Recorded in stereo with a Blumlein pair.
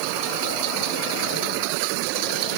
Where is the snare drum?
I don't hear a snare drum.